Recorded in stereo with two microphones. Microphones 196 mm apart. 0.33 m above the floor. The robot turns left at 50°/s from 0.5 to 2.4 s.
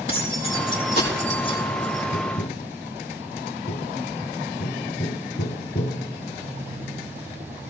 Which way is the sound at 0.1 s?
75° left (ahead or behind).